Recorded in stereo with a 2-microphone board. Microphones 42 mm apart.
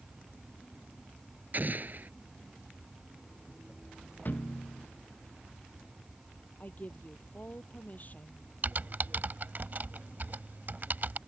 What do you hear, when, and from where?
1.5 s an explosion: 45° right (ahead or behind)
4.2 s a thud: 50° left (ahead or behind)
6.6 s a woman speaking: 45° left (ahead or behind)
8.6 s typing on a keyboard: 50° right (ahead or behind)